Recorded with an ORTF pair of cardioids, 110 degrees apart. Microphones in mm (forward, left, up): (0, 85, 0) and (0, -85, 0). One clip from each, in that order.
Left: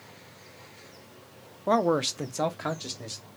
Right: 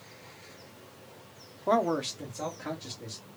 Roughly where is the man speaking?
Ahead.